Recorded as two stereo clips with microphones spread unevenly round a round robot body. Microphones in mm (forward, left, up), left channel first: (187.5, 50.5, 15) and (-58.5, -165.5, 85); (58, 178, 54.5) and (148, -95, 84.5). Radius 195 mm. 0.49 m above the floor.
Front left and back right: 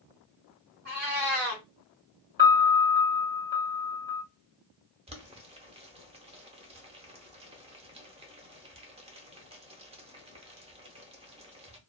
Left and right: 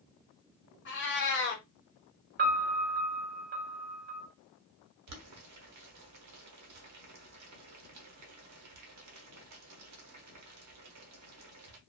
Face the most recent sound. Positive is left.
turn(degrees=-60)